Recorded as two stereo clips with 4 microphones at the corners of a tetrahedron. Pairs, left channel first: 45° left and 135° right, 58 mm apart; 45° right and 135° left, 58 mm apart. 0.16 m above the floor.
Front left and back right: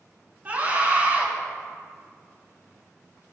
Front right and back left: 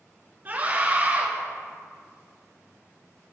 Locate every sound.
0.5 s a scream: 175° left, 2 m